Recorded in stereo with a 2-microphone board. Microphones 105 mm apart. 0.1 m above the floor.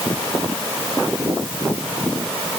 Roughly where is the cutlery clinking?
No cutlery clinking in this recording.